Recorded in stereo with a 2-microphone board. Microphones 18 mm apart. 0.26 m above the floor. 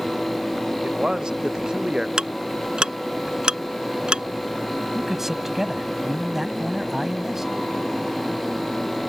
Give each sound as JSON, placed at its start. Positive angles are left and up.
{"t": 0.8, "sound": "a man speaking", "side_deg": -50}
{"t": 2.2, "sound": "ticking", "side_deg": -65}
{"t": 4.9, "sound": "a man speaking", "side_deg": -20}